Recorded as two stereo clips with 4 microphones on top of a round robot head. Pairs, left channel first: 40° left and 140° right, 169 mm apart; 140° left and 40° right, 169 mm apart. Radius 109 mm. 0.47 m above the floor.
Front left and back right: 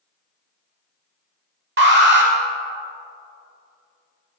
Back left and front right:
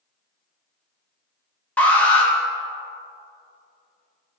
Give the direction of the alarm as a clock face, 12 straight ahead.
5 o'clock.